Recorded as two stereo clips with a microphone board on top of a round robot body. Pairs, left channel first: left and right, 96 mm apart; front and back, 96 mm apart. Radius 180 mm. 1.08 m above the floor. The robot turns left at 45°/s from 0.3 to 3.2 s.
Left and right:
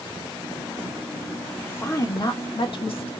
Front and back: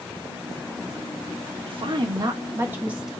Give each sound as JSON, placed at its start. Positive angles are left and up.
{"t": 1.7, "sound": "a woman speaking", "azimuth_deg": 160, "distance_m": 1.0}